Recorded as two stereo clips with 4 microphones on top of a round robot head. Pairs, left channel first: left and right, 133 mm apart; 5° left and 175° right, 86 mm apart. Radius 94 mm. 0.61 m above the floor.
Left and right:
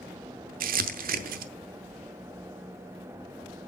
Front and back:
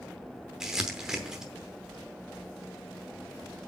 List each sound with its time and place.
0.6 s crumpling: 90° right, 0.8 m